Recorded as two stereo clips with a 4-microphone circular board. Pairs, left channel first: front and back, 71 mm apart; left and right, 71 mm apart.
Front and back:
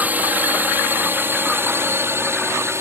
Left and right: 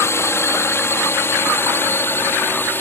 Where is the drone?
120° left; by 2.8 s 140° left.